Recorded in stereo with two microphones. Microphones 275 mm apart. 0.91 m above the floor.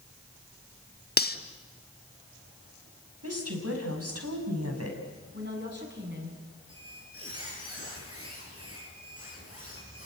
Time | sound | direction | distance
1.2 | cutlery clinking | 35° left (ahead or behind) | 1.1 m
3.2 | a woman speaking | 60° right (ahead or behind) | 5.5 m
5.3 | a woman speaking | 40° right (ahead or behind) | 7.5 m
6.7 | a squeak | 55° right (ahead or behind) | 8.5 m